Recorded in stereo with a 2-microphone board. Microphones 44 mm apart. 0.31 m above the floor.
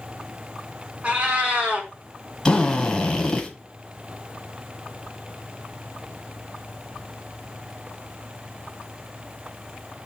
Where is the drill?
15° left (ahead or behind), 0.8 m.